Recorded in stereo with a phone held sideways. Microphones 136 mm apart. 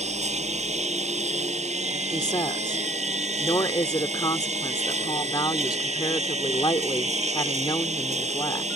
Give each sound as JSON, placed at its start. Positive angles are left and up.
{"t": 0.0, "sound": "a lawn mower", "side_deg": -55}
{"t": 2.1, "sound": "a woman speaking", "side_deg": 30}